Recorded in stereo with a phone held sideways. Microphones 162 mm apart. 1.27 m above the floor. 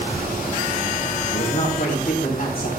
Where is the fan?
75° right (ahead or behind), 5 m.